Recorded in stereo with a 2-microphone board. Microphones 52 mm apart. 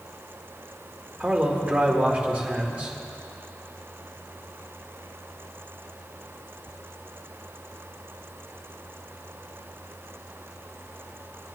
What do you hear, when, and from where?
1.2 s a man speaking: 25° right (ahead or behind), 1.9 m